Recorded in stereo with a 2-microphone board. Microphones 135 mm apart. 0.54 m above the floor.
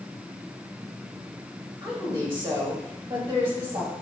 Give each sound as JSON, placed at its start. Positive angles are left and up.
{"t": 1.8, "sound": "a woman speaking", "side_deg": -40, "distance_m": 3.0}